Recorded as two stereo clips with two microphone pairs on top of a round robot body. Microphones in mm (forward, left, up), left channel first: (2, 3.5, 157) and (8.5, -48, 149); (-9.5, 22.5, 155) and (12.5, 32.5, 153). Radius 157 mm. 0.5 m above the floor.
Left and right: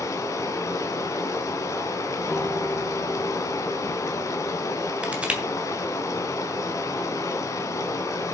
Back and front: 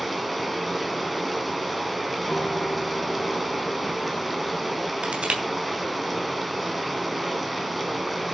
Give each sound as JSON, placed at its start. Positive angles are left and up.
{"t": 0.0, "sound": "running water", "azimuth_deg": 110, "distance_m": 2.5}
{"t": 2.3, "sound": "a guitar", "azimuth_deg": 170, "distance_m": 4.0}
{"t": 5.0, "sound": "crushing", "azimuth_deg": -15, "distance_m": 3.0}